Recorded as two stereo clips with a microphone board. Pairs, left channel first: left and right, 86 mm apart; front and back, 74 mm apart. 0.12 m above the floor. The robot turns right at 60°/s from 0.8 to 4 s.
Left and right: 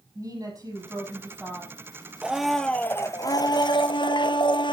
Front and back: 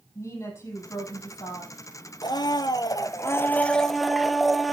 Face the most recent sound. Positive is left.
turn(degrees=90)